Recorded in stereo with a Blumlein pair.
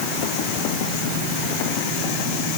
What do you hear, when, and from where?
Only background noise.